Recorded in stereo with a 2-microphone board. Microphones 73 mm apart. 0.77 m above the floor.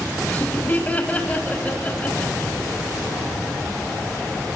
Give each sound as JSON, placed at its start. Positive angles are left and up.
{"t": 0.3, "sound": "laughter", "side_deg": 20, "distance_m": 4.5}